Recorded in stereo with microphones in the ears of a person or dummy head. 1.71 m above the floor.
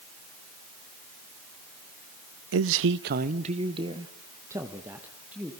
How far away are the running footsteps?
No running footsteps in this recording.